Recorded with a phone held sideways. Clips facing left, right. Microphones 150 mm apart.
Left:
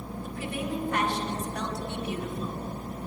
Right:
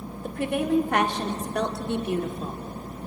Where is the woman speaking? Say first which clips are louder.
Right 9 dB; 65° right (ahead or behind), 3 m; by 2.6 s 40° right (ahead or behind), 2.5 m.